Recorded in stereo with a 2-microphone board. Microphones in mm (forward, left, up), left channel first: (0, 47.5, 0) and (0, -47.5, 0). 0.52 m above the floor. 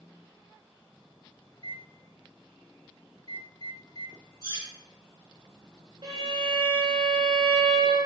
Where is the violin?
60° right (ahead or behind), 1.8 m.